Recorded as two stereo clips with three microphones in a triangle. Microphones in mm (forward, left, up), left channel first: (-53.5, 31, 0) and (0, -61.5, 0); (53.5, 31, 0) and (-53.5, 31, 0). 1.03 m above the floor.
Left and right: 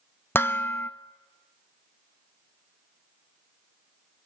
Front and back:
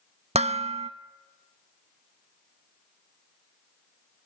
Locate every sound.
0.3 s dishes clattering: 170° right, 0.7 m